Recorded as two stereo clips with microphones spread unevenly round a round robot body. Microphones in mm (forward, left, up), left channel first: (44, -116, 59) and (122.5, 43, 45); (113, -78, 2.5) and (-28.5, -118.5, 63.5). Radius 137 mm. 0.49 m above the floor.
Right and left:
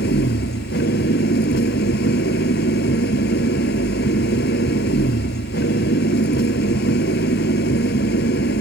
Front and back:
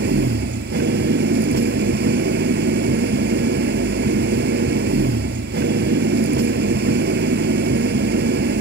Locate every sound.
0.0 s an engine running: 165° right